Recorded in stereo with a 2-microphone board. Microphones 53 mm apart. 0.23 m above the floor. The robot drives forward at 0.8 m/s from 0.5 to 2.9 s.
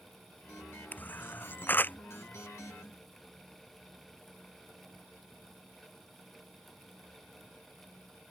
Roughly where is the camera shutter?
Left.